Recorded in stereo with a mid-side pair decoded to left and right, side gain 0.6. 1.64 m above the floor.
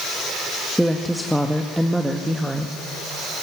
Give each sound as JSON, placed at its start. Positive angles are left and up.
{"t": 0.8, "sound": "a woman speaking", "azimuth_deg": -5, "distance_m": 2.5}